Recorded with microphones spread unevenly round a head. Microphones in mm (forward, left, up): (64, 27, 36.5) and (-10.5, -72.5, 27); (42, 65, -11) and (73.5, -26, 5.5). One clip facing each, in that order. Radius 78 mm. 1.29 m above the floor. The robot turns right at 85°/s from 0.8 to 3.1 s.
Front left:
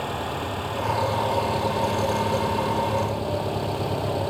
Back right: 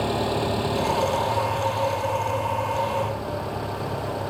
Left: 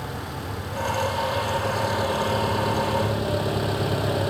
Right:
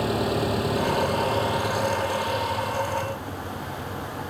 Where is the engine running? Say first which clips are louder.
Back right 5 dB, right 9 dB; 70° right; by 4.3 s 125° left.